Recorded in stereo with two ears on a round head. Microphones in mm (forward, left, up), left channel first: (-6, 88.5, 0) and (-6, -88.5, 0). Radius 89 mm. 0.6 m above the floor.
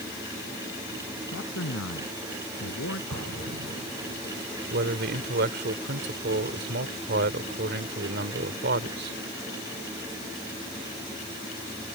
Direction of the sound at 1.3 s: 75° left (ahead or behind).